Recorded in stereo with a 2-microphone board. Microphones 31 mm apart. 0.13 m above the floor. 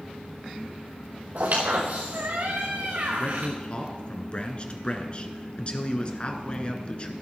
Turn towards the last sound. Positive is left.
turn(degrees=35)  # may be behind; listen again after turning